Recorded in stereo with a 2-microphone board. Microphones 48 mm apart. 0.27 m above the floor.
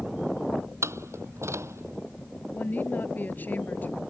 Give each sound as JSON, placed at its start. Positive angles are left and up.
{"t": 0.8, "sound": "a door slam", "side_deg": -75}
{"t": 2.5, "sound": "a woman speaking", "side_deg": 40}